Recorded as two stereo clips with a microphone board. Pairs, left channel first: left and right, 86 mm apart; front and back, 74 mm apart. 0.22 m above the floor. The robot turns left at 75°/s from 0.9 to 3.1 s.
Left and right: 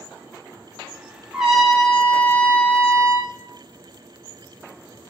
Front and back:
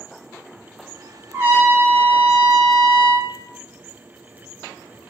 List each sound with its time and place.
1.3 s a trumpet: 160° right, 0.7 m; by 3.3 s 70° left, 0.7 m